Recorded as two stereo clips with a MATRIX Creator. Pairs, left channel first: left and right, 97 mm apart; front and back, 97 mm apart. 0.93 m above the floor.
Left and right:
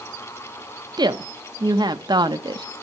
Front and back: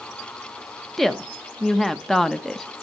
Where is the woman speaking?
85° right, 1.0 m.